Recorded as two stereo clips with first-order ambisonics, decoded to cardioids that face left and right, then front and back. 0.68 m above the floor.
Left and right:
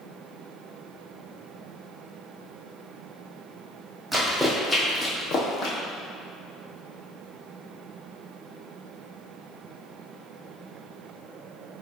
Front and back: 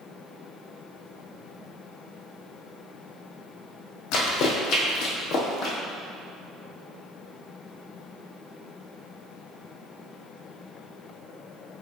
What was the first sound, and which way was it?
Running footsteps, 10° right.